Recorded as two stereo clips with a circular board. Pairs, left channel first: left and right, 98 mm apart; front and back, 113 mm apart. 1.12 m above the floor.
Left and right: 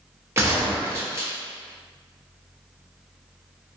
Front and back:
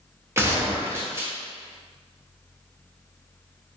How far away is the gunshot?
About 0.9 m.